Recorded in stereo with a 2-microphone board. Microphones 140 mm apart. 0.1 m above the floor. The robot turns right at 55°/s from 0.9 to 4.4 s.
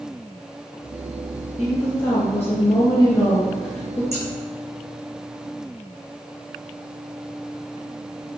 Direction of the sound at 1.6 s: 10° left (ahead or behind).